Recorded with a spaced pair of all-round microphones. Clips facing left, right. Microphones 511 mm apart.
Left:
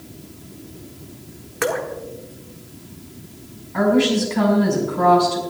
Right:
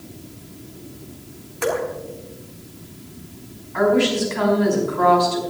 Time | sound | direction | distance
1.6 | dripping | 80° left | 1.7 m
3.7 | a woman speaking | 60° left (ahead or behind) | 5 m